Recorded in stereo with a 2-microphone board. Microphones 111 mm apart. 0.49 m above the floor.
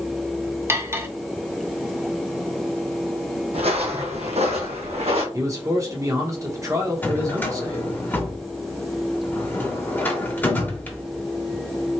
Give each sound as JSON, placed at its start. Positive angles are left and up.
{"t": 0.7, "sound": "cutlery clinking", "side_deg": -20, "distance_m": 0.6}
{"t": 3.5, "sound": "footsteps", "side_deg": -60, "distance_m": 1.0}
{"t": 5.3, "sound": "a man speaking", "side_deg": -30, "distance_m": 1.0}
{"t": 7.0, "sound": "a drawer", "side_deg": 15, "distance_m": 1.0}